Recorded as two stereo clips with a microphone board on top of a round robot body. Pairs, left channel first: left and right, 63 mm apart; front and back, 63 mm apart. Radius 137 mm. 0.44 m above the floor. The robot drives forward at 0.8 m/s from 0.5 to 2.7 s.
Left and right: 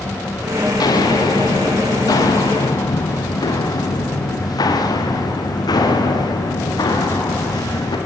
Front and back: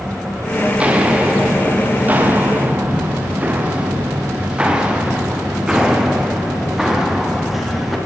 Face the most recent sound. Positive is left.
turn(degrees=90)